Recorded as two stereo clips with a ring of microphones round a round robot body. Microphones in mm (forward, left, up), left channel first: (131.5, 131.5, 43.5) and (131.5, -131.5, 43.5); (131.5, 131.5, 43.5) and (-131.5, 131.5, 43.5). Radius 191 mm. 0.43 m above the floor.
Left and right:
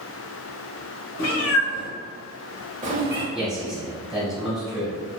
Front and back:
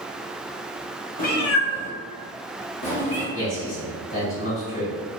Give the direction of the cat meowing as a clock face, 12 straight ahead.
10 o'clock.